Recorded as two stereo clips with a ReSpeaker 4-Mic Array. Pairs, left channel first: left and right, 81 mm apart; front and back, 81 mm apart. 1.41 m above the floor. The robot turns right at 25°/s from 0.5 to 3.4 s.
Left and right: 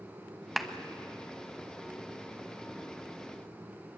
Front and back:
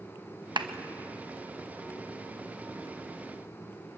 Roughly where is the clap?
Behind.